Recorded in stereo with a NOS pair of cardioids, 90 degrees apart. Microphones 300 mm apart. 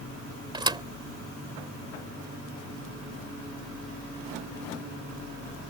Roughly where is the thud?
Ahead.